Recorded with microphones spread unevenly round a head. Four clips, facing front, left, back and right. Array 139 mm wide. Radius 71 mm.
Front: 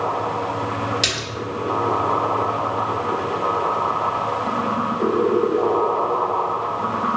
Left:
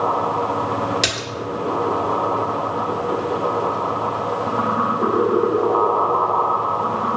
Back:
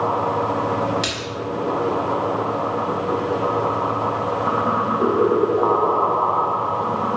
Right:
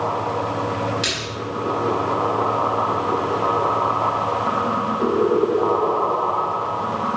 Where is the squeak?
I don't hear a squeak.